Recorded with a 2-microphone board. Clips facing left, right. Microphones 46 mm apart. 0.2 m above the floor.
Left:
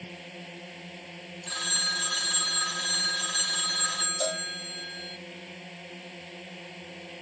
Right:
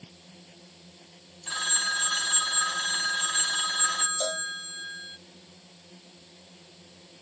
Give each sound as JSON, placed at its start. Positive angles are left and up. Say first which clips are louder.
{"t": 0.0, "sound": "a drone", "louder": "left 10 dB", "side_deg": 65}
{"t": 1.5, "sound": "a phone ringing", "louder": "right 3 dB", "side_deg": -15}
{"t": 4.2, "sound": "a cowbell", "louder": "even", "side_deg": 5}